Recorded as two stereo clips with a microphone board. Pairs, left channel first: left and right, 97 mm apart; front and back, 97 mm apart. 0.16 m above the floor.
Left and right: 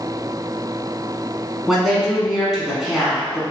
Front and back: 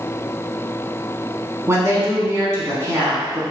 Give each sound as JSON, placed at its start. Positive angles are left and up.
{"t": 1.7, "sound": "a woman speaking", "azimuth_deg": -175, "distance_m": 1.2}